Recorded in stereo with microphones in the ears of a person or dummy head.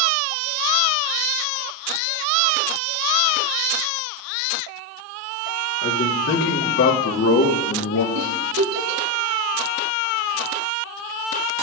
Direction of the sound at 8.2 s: 70° right (ahead or behind).